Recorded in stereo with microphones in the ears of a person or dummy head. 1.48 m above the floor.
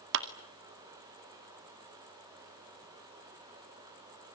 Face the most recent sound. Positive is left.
turn(degrees=-60)  # may be behind; listen again after turning